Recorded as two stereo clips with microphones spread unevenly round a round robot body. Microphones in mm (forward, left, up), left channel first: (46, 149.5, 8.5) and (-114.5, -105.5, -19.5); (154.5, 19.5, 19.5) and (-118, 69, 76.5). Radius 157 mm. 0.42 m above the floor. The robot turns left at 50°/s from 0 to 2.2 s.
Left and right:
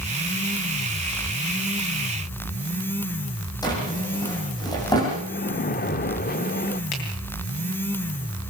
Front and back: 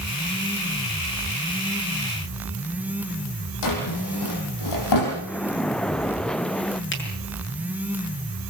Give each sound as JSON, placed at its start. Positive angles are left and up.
{"t": 3.6, "sound": "a drawer", "azimuth_deg": -20, "distance_m": 7.0}
{"t": 5.3, "sound": "a splash", "azimuth_deg": 40, "distance_m": 0.7}
{"t": 6.9, "sound": "a finger snap", "azimuth_deg": 35, "distance_m": 6.0}